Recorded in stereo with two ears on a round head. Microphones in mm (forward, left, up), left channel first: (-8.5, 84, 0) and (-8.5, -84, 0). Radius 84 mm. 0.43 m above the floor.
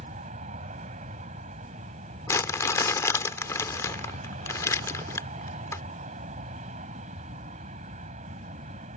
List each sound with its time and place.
0.0 s an aircraft: 40° right (ahead or behind)
2.3 s crumpling: 15° left (ahead or behind)